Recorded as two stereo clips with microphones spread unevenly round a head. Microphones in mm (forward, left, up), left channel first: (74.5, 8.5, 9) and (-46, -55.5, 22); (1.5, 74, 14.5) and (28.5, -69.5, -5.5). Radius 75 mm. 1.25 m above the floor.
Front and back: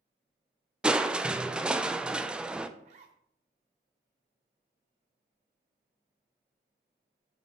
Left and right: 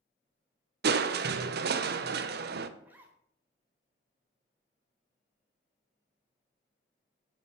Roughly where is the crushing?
Right.